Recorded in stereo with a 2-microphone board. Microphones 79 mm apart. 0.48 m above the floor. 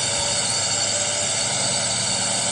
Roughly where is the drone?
Centre.